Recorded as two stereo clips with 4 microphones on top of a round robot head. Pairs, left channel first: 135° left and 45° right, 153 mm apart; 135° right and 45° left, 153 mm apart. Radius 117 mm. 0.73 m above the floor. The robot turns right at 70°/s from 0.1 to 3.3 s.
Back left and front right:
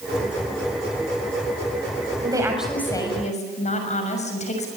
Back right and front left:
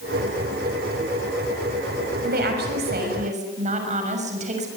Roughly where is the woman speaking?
Ahead.